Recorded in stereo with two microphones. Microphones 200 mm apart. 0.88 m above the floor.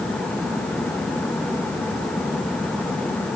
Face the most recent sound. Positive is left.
No sound to turn to.